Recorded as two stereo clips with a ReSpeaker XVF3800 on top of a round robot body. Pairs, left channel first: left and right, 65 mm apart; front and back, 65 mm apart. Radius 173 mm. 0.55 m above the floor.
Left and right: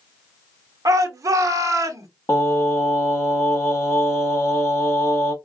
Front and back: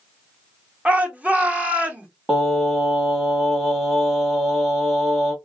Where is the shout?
115° right, 1.2 m.